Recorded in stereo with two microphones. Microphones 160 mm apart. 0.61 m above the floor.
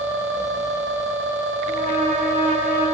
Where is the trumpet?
70° right (ahead or behind), 3.5 m.